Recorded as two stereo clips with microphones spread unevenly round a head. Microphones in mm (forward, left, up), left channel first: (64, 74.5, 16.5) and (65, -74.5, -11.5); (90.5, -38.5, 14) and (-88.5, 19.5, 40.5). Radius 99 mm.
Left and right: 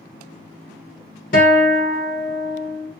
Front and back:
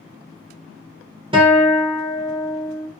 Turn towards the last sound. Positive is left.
turn(degrees=100)